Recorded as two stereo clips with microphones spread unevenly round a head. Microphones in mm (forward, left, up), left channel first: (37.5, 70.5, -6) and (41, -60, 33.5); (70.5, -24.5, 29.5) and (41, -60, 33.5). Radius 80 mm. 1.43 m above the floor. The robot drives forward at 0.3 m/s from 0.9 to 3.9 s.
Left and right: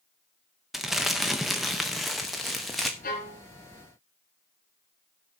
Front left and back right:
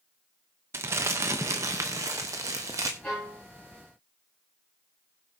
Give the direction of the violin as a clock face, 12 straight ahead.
7 o'clock.